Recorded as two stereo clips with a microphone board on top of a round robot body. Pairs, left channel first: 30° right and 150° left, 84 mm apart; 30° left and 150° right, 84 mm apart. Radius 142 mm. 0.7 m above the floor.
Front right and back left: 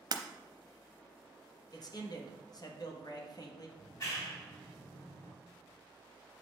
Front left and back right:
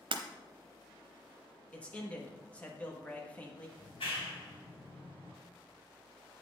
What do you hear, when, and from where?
0.1 s breaking glass: 165° right, 0.7 m
1.7 s a man speaking: 40° right, 1.5 m
3.8 s a clap: 20° left, 3 m